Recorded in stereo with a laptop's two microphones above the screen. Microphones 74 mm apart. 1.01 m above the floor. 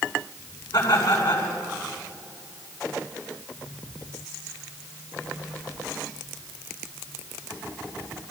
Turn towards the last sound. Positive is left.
turn(degrees=40)  # may be behind; listen again after turning